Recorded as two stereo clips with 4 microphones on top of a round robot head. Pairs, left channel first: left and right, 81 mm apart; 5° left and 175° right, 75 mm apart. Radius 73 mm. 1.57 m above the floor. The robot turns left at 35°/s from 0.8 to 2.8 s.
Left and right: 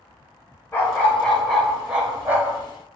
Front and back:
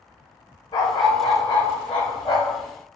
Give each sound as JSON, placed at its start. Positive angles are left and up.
{"t": 0.7, "sound": "a dog barking", "azimuth_deg": 25, "distance_m": 2.0}